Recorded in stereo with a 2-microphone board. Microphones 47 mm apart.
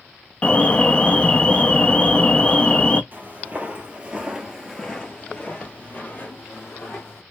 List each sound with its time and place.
0.4 s an alarm: 25° left (ahead or behind), 0.5 m
3.1 s footsteps: 35° right (ahead or behind), 1.3 m; by 7.2 s 45° left (ahead or behind), 1.9 m